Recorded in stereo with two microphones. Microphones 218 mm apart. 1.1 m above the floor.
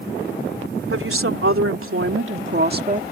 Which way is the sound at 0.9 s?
75° right (ahead or behind).